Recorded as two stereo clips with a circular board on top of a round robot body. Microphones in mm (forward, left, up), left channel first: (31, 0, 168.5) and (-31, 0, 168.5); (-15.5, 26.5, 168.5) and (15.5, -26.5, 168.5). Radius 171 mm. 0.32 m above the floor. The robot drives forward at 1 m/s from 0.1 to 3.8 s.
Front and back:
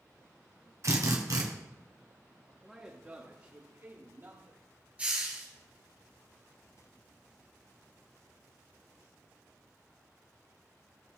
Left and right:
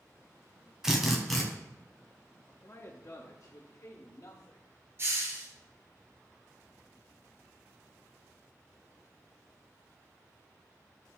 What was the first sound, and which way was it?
A drill, 140° right.